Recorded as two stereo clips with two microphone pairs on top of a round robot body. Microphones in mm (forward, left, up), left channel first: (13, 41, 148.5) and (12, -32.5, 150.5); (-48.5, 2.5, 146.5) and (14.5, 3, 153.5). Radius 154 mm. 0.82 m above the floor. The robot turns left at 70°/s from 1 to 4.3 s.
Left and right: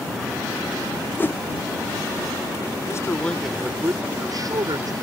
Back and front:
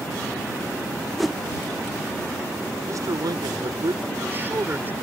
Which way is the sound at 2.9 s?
45° left.